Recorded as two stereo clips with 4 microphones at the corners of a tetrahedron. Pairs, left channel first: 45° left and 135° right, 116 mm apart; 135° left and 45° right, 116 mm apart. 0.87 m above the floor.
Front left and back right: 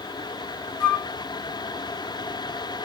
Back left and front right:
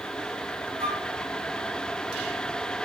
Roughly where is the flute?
Ahead right.